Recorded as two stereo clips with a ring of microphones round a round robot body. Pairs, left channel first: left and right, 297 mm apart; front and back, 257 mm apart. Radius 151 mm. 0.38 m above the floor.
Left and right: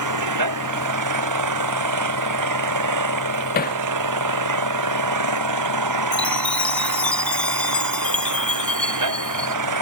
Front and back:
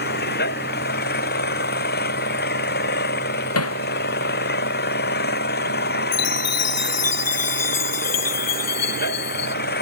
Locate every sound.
0.0 s an engine running: 60° right
3.5 s hammering: 30° left
6.1 s a chime: 5° left